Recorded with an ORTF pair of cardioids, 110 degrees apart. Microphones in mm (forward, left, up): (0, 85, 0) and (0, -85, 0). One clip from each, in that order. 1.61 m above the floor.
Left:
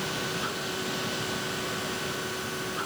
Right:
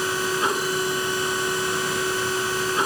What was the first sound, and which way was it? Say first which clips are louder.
A machine running: right 8 dB; 65° right.